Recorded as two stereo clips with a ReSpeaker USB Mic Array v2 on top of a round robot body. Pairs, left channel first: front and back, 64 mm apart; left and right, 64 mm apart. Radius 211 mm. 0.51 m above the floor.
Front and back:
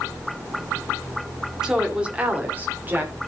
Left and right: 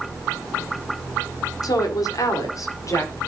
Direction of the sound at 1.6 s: 100° left.